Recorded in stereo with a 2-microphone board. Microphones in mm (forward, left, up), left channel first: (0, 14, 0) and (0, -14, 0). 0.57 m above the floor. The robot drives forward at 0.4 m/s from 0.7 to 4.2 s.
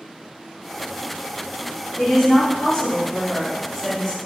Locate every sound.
2.0 s a woman speaking: 15° left (ahead or behind), 1.9 m; by 4.2 s 10° left (ahead or behind), 3 m